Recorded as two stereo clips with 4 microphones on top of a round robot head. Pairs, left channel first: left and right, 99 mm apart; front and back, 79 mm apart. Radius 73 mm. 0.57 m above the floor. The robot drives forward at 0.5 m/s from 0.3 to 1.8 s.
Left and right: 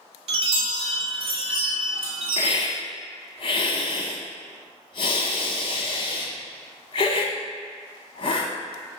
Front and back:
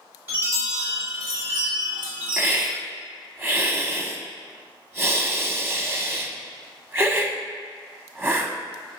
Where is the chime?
110° right, 1.0 m; by 2.7 s 140° right, 1.4 m.